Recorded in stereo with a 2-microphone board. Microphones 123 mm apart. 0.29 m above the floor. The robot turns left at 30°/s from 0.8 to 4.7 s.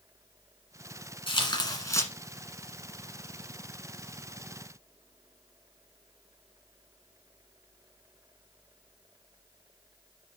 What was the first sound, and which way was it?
Tearing paper, 45° left (ahead or behind).